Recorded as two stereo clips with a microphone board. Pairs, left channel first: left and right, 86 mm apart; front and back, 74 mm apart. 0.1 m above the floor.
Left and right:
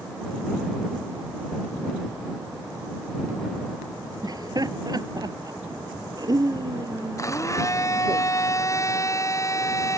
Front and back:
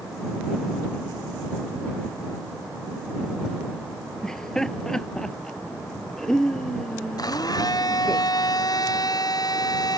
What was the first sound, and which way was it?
Laughter, 80° right.